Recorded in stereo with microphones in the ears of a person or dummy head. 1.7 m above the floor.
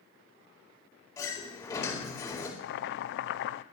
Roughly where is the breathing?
I don't hear breathing.